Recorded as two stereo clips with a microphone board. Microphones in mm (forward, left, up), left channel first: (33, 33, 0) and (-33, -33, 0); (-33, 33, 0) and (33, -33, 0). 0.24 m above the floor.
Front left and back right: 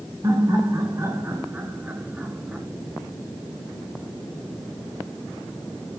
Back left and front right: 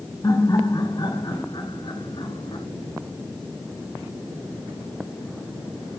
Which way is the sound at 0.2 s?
Straight behind.